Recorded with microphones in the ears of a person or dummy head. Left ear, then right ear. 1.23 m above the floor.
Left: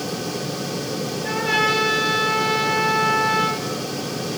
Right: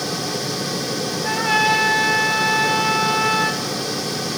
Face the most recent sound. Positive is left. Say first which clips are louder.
# right 2 dB
turn(degrees=-20)  # may be behind; listen again after turning